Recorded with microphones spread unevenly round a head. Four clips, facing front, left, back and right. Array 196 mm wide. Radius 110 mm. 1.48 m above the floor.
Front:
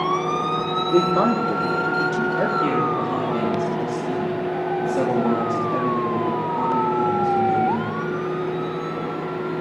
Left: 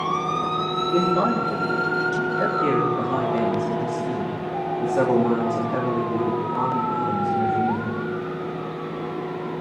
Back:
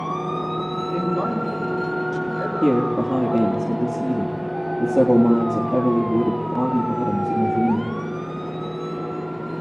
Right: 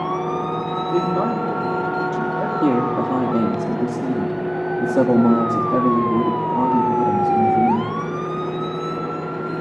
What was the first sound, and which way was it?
A man speaking, straight ahead.